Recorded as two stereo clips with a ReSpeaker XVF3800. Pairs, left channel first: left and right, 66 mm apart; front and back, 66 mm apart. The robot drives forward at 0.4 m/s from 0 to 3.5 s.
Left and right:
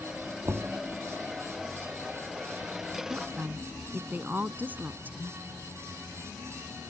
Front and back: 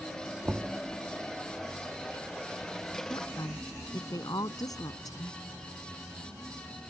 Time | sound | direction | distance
0.5 | knocking | 120° right | ?
3.1 | a woman speaking | 25° right | ?